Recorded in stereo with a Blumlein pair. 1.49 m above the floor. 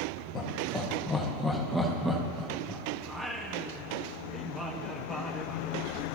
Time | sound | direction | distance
0.3 | laughter | 25° left | 2 m
3.0 | singing | straight ahead | 1.8 m